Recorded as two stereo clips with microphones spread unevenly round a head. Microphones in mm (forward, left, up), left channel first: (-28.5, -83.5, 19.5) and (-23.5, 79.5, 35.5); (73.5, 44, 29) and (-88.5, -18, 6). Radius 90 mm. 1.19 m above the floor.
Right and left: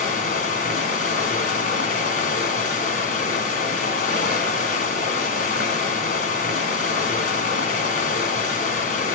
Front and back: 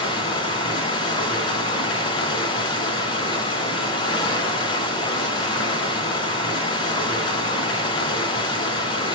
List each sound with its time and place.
0.0 s running water: 40° right, 2.5 m